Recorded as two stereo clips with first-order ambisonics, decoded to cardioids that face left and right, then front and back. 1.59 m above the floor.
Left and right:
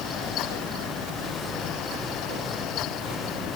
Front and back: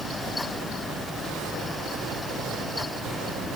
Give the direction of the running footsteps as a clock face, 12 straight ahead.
No running footsteps in this recording.